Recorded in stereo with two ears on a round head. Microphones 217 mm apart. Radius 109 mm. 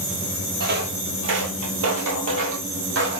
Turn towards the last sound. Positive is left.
turn(degrees=-45)  # may be behind; listen again after turning